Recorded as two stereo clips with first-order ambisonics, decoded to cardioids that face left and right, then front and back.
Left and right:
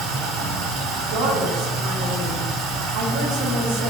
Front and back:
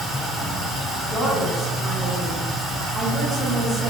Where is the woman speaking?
95° right, 1.0 m.